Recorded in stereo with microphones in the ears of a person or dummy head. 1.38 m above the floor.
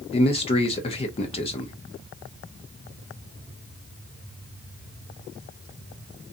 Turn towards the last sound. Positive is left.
turn(degrees=25)  # may be behind; listen again after turning